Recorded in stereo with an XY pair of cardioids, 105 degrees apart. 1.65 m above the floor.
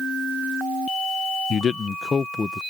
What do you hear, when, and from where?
1.5 s a man speaking: 45° left; by 2.6 s 20° left